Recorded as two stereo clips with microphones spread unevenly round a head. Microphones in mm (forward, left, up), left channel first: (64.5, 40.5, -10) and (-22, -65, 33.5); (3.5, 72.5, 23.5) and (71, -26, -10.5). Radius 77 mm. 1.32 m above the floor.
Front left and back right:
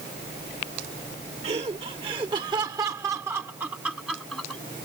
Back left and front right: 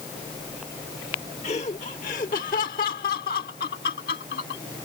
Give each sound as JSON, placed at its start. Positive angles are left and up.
{"t": 1.4, "sound": "laughter", "azimuth_deg": 175}